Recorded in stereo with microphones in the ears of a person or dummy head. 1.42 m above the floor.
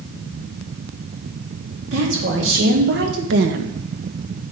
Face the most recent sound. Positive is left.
turn(degrees=-65)  # may be behind; listen again after turning